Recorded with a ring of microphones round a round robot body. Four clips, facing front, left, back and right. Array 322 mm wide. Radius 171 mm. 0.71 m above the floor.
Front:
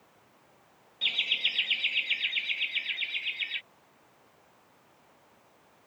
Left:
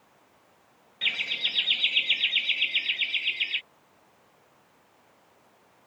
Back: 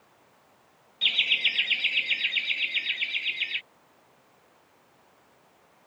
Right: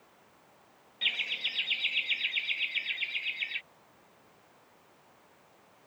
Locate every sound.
1.0 s laughter: 110° left; by 3.6 s 130° left